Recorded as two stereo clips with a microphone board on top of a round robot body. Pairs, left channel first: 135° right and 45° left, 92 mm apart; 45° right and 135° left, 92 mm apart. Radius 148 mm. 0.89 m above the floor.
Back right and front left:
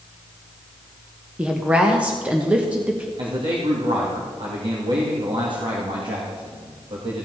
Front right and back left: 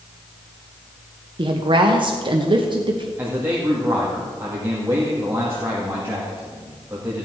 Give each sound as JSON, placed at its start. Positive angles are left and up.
{"t": 1.4, "sound": "a woman speaking", "azimuth_deg": 120, "distance_m": 1.3}
{"t": 3.2, "sound": "a man speaking", "azimuth_deg": 65, "distance_m": 2.0}